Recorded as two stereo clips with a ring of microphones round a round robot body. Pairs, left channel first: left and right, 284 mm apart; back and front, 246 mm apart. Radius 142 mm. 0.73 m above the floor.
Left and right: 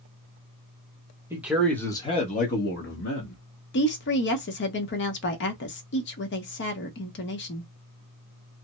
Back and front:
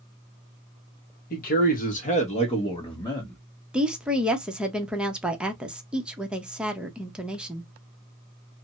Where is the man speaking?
165° right, 1.1 m; by 3.4 s 105° left, 1.4 m.